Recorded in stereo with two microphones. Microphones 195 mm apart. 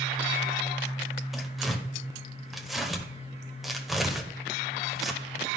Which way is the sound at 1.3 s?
Centre (ahead or behind).